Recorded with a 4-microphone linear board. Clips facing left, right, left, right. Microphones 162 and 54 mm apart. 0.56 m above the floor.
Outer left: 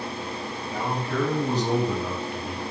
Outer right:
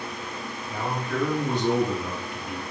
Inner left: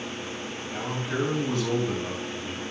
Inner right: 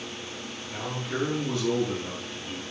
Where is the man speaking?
25° left (ahead or behind), 3.5 m; by 2.6 s 50° left (ahead or behind), 4 m.